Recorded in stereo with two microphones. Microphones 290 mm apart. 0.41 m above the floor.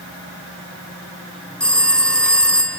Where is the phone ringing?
5° left (ahead or behind), 0.8 m.